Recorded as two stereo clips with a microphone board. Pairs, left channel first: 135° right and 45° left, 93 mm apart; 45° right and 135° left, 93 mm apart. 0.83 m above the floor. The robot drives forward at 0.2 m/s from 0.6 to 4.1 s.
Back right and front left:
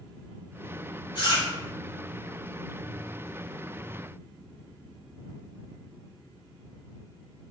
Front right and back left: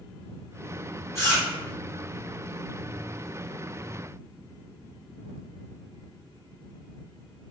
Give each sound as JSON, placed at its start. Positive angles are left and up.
{"t": 1.1, "sound": "chewing", "azimuth_deg": -105, "distance_m": 1.6}